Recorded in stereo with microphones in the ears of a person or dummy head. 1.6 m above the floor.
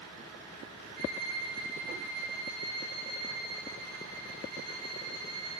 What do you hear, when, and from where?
1.0 s a violin: 55° right (ahead or behind), 0.6 m